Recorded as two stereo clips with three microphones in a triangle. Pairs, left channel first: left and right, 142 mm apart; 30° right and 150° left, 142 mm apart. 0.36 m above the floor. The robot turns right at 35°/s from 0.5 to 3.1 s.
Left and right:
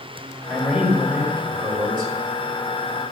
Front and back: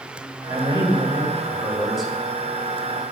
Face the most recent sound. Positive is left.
turn(degrees=-85)